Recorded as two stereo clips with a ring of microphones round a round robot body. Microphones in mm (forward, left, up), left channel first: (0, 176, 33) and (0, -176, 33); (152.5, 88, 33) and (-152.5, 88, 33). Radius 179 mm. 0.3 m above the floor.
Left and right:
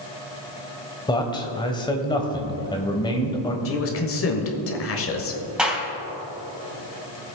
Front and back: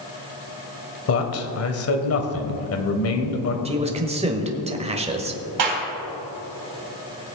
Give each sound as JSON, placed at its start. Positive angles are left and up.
{"t": 1.1, "sound": "a man speaking", "azimuth_deg": 15, "distance_m": 1.4}
{"t": 3.6, "sound": "a man speaking", "azimuth_deg": 120, "distance_m": 1.2}
{"t": 5.6, "sound": "a clap", "azimuth_deg": 180, "distance_m": 3.0}